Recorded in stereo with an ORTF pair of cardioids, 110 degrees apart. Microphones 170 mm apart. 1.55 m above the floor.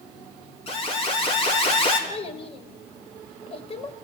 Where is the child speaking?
35° left, 4 m.